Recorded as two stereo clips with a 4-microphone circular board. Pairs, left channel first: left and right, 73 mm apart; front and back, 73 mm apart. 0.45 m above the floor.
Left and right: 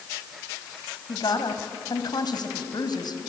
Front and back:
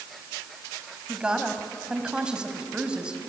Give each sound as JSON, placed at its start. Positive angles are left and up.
{"t": 1.1, "sound": "a woman speaking", "azimuth_deg": 100, "distance_m": 2.5}